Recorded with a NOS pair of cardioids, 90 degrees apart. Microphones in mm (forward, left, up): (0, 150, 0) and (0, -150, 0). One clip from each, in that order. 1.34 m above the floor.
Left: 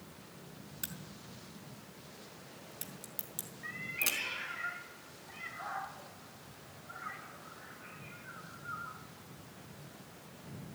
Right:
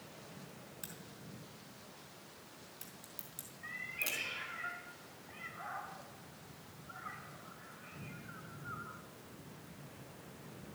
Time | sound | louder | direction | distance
0.8 | a crack | left 7 dB | 30° left | 4.5 m
3.6 | a cat meowing | left 4 dB | straight ahead | 3.5 m